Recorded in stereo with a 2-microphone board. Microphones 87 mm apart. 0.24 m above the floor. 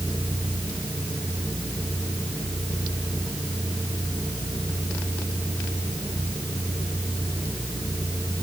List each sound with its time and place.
Only background noise.